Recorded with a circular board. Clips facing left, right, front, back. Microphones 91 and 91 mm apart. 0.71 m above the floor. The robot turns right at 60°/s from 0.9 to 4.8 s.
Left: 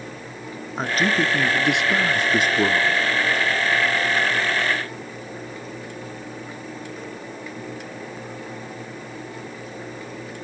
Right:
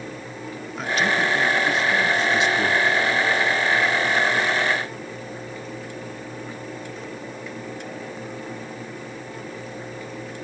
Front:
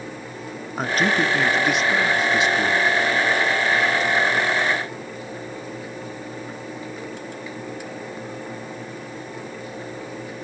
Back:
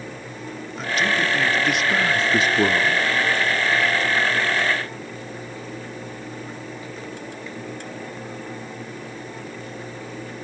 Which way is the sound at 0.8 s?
40° left.